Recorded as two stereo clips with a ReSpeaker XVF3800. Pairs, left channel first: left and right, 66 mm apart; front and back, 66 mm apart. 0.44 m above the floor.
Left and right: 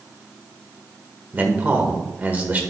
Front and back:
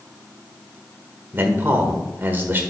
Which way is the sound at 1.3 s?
140° right.